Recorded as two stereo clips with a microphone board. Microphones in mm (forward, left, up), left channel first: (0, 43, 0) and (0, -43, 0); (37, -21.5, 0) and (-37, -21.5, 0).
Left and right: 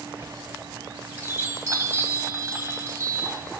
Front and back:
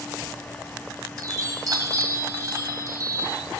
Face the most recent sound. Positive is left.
turn(degrees=-150)